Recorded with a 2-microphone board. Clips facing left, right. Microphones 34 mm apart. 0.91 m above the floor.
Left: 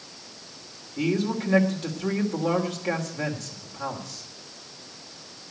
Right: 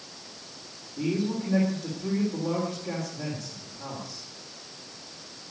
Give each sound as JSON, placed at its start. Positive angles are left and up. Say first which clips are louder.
{"t": 1.0, "sound": "a man speaking", "louder": "left 3 dB", "side_deg": 60, "distance_m": 3.0}